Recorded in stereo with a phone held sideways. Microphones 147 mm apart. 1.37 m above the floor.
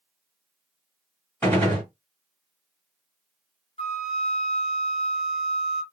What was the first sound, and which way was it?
A gunshot, 10° left (ahead or behind).